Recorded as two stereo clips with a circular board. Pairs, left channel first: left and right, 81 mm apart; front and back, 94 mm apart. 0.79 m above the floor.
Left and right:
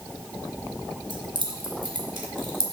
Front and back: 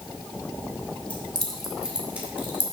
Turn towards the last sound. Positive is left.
turn(degrees=-115)